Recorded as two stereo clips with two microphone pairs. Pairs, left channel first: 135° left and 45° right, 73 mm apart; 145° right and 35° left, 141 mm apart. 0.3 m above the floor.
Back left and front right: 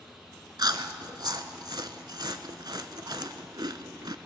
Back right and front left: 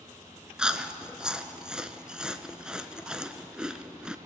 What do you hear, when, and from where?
0.6 s chewing: 50° right, 0.6 m